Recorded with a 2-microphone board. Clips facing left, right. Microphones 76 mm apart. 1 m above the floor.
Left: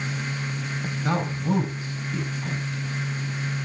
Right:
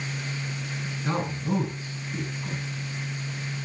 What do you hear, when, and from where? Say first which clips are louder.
1.0 s a man speaking: left 3 dB; 85° left, 5.5 m